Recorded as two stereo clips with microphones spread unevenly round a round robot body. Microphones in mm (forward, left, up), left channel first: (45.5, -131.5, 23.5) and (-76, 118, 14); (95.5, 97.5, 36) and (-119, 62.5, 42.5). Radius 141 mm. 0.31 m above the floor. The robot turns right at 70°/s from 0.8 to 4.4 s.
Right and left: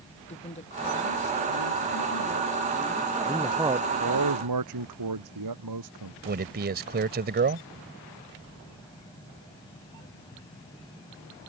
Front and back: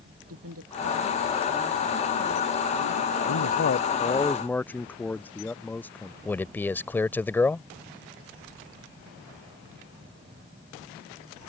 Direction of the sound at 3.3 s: 10° left.